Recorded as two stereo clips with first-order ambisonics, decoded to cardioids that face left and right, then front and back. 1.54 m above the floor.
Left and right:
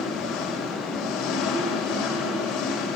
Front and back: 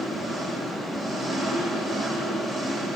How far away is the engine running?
About 7 m.